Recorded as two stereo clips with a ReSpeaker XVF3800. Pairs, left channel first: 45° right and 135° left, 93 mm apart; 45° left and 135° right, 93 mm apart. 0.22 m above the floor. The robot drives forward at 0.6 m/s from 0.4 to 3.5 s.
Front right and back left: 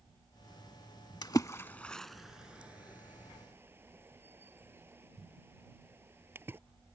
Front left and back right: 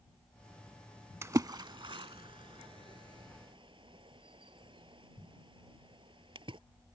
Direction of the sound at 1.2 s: 80° right.